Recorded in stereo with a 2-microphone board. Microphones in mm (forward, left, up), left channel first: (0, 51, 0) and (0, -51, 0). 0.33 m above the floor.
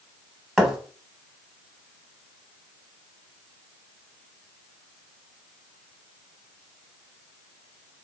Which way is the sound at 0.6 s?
5° right (ahead or behind).